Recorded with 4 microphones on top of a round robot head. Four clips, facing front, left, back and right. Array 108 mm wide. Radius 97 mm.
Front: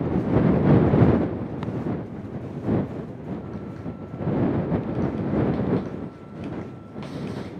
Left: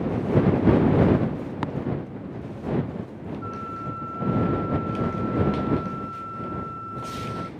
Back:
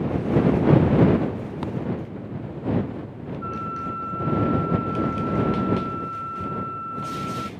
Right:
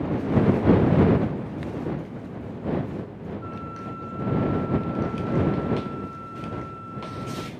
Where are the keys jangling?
No keys jangling in this recording.